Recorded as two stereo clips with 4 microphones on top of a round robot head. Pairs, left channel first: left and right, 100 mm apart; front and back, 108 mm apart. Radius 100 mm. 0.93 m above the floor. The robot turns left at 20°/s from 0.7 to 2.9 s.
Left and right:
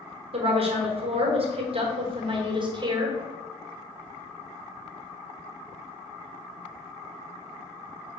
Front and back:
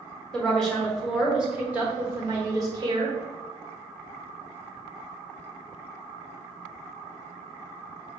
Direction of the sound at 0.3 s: 85° right.